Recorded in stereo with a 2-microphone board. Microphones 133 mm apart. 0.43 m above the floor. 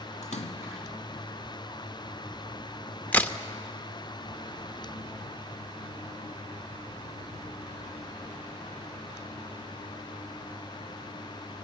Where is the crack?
10° left (ahead or behind), 1.0 m.